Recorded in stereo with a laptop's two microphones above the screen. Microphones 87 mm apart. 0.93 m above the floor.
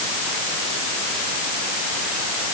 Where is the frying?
I don't hear frying.